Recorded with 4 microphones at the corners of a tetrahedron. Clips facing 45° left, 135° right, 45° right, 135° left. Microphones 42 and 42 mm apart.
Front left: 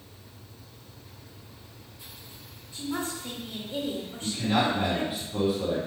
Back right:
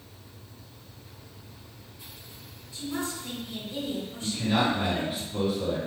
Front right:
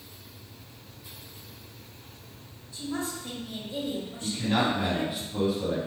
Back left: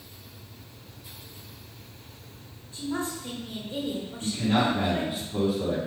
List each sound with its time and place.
2.7 s a woman speaking: 90° left, 2 m
4.2 s a man speaking: 115° left, 1.7 m